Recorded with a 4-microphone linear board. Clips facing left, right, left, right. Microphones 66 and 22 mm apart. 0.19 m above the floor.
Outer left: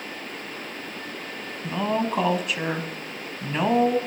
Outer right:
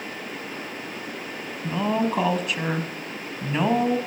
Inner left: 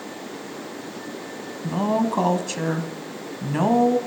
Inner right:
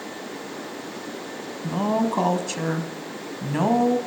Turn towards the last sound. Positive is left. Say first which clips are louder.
# outer right 1 dB, inner left 1 dB
turn(degrees=0)  # may be behind; listen again after turning